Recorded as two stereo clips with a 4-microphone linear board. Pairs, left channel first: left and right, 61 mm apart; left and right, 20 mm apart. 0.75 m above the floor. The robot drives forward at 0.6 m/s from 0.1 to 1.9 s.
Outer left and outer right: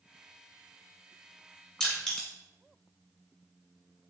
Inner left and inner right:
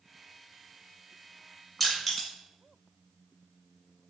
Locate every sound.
1.8 s crushing: 10° left (ahead or behind), 1.6 m